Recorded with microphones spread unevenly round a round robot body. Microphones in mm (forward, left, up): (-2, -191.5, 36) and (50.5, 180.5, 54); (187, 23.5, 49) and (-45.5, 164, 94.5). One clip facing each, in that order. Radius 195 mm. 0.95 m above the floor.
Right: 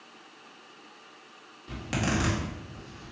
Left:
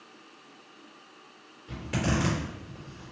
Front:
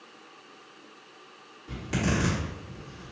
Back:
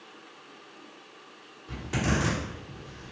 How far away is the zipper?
About 1.6 m.